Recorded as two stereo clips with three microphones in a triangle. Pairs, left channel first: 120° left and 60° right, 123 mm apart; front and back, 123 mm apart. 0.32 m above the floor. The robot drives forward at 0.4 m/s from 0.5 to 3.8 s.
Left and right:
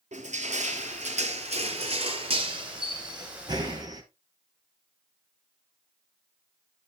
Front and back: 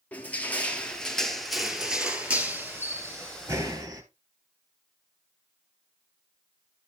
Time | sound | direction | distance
0.1 | crushing | 80° right | 1.9 m